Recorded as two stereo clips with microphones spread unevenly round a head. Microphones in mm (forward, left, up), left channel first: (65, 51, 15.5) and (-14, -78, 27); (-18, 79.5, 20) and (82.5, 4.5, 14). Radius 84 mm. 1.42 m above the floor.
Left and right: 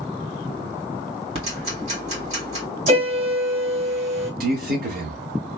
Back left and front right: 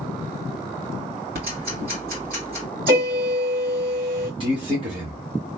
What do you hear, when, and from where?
1.4 s ticking: 75° right, 2 m
2.9 s a piano: 75° right, 1.7 m
4.4 s a man speaking: 95° right, 1.3 m